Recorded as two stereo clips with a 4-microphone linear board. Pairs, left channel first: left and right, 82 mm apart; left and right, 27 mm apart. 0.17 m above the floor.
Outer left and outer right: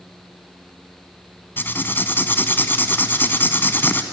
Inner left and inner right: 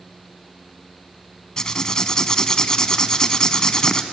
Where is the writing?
25° left (ahead or behind), 0.9 m.